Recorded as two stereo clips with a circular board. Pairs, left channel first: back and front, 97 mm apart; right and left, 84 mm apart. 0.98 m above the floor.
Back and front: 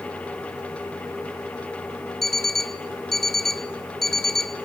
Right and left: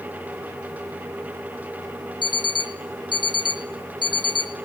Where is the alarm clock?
95° right, 0.9 m.